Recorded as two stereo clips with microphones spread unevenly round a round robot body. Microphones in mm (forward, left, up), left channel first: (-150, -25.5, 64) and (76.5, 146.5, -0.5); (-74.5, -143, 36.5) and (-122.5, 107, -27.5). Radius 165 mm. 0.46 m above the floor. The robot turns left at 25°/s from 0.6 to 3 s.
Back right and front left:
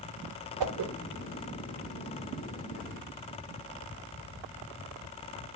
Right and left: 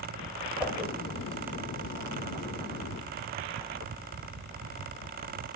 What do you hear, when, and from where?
0.6 s a whoosh: 15° left, 0.5 m; by 0.9 s 10° left, 0.5 m